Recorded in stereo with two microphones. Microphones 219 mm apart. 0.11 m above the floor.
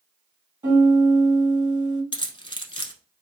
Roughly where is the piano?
Centre.